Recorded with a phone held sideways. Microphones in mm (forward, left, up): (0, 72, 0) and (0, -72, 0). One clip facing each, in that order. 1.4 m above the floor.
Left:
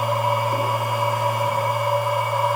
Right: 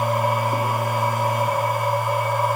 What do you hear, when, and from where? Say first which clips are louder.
0.0 s a machine running: even; 55° right (ahead or behind), 3.5 m